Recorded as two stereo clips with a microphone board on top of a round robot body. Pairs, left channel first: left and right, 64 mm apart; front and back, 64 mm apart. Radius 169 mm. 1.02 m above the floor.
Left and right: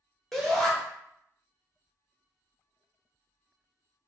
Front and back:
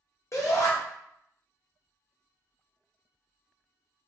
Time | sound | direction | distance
0.3 | a shout | 5° left | 1.0 m